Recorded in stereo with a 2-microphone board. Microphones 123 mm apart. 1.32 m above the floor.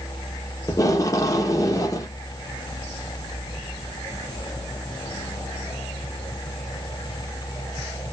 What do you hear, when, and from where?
0.7 s tape being pulled: 30° left (ahead or behind), 0.6 m